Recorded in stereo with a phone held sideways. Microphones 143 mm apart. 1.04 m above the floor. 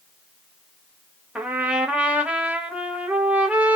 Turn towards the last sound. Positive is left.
turn(degrees=-10)  # may be behind; listen again after turning